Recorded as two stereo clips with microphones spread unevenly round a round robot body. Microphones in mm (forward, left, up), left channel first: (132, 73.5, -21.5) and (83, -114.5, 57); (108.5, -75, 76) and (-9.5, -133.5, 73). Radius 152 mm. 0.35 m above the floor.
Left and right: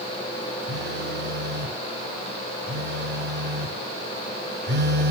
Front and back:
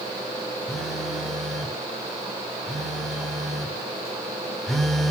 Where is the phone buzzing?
65° right, 0.9 m.